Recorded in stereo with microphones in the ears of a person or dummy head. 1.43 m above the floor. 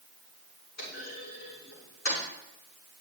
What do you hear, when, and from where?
0.8 s a clunk: 65° left (ahead or behind), 7.5 m